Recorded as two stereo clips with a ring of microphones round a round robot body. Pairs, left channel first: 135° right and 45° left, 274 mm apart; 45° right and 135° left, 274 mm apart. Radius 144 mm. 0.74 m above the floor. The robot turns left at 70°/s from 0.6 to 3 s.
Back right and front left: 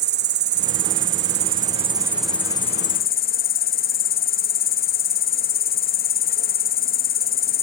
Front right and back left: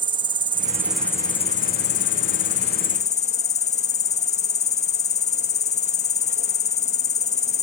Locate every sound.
0.0 s an insect: 70° left, 0.8 m; by 7.6 s 100° right, 0.8 m